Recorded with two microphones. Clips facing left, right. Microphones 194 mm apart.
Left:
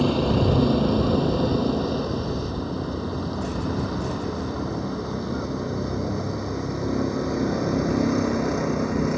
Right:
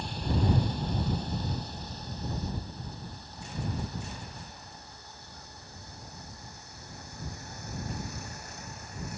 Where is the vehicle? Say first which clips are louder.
Left 12 dB; 80° left.